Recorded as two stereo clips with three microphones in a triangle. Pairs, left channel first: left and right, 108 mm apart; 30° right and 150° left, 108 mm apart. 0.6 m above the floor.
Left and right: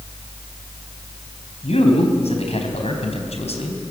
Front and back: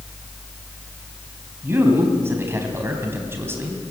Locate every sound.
1.6 s a man speaking: 80° left, 3.5 m